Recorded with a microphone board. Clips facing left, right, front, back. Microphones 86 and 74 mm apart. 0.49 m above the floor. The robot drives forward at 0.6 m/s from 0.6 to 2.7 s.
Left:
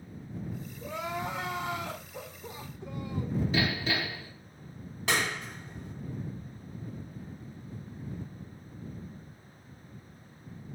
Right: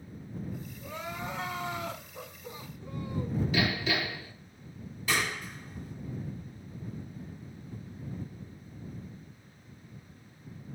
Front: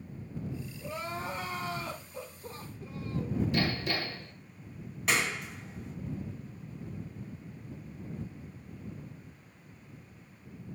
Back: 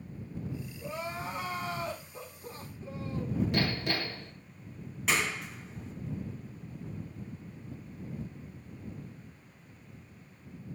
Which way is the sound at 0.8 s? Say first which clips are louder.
Left 5 dB, even; 100° left.